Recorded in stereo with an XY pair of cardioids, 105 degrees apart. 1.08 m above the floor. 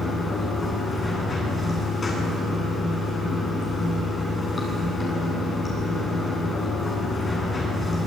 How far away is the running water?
About 9.5 m.